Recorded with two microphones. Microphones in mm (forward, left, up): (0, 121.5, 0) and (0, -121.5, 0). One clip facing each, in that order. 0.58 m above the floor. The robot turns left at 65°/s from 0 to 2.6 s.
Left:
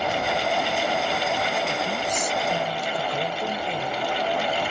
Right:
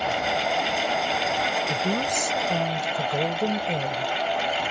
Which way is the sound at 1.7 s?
75° right.